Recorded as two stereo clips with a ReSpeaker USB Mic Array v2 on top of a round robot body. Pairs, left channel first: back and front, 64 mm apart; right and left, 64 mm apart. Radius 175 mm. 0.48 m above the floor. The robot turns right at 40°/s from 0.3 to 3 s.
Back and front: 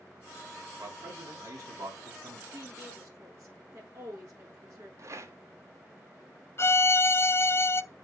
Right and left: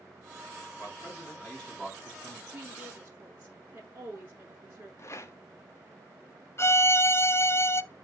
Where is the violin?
135° right, 0.8 m.